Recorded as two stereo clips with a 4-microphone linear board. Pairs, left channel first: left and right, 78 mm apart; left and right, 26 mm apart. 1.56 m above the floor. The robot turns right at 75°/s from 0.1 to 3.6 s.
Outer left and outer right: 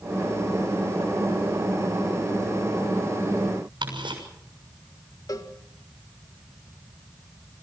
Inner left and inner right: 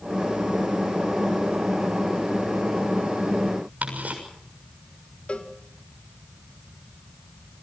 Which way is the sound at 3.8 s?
85° right.